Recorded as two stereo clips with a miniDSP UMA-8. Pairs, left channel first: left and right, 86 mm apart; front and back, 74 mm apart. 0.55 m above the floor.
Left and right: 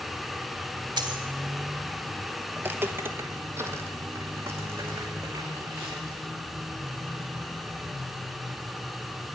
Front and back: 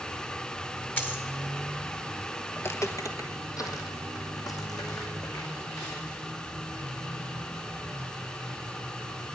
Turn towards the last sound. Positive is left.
turn(degrees=-30)